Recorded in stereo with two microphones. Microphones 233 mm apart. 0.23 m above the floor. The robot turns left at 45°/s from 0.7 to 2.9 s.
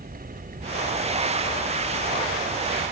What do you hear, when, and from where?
0.0 s an aircraft: 40° right; by 2.9 s 140° right